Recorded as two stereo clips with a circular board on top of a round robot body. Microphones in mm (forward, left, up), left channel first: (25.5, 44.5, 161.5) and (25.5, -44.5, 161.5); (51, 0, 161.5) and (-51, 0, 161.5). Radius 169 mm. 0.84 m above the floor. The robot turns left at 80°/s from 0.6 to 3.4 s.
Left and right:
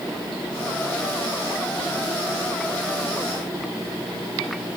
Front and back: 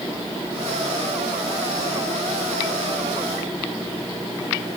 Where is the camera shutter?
I don't hear a camera shutter.